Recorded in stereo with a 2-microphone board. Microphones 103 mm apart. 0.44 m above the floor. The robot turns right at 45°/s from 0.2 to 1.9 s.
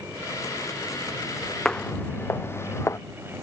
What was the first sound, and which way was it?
Footsteps, 5° left (ahead or behind).